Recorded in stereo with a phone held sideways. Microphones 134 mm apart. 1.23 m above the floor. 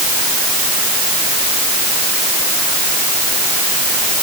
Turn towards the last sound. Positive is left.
No sound to turn to.